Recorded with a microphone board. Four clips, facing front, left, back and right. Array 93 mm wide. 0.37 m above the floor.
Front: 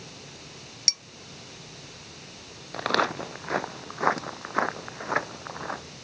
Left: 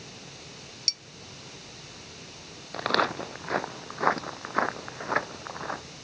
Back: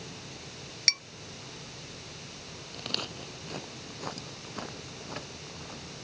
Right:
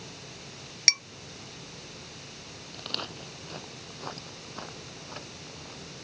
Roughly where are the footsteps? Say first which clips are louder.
Left 15 dB, front 15 dB; ahead left.